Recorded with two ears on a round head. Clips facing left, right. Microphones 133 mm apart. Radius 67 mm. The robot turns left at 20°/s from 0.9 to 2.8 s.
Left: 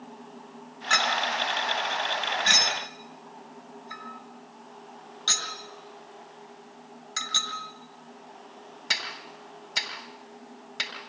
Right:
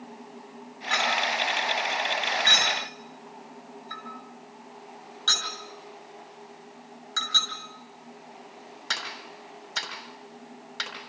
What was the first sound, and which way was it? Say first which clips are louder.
A clink: even; 55° left (ahead or behind).